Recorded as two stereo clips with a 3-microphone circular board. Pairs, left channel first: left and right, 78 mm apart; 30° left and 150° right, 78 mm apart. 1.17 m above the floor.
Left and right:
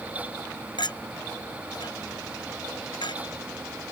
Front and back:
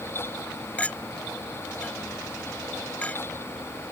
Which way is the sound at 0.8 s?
100° left.